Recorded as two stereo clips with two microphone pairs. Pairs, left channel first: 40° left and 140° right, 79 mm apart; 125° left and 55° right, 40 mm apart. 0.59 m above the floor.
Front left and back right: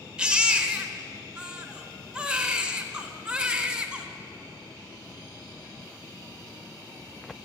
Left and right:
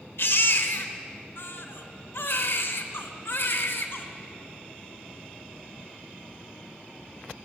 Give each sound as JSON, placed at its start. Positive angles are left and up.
{"t": 0.2, "sound": "a baby crying", "azimuth_deg": 145, "distance_m": 0.9}